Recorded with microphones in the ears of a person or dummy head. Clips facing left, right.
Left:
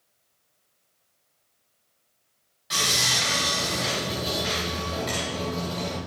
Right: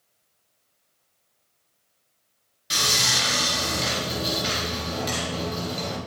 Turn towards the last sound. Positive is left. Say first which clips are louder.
# right 1 dB
turn(degrees=-35)  # may be behind; listen again after turning